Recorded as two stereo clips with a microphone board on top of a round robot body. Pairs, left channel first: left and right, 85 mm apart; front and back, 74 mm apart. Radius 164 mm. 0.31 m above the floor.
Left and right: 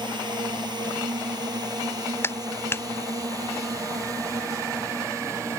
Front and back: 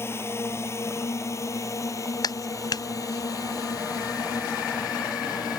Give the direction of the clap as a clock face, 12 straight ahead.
11 o'clock.